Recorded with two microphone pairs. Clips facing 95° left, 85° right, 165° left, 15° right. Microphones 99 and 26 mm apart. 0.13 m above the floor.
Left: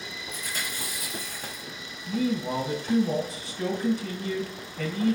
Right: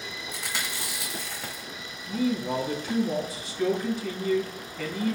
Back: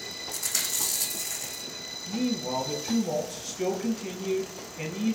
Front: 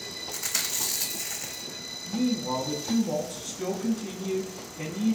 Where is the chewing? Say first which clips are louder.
Right 1 dB, even; 100° right, 1.4 m.